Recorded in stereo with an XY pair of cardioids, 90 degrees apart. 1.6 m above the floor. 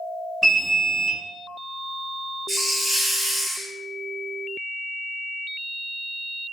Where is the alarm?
25° right, 1.4 m.